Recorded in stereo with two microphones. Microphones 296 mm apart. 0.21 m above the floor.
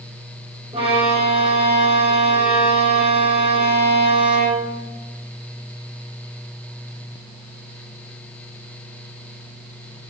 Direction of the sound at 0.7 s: 20° right (ahead or behind).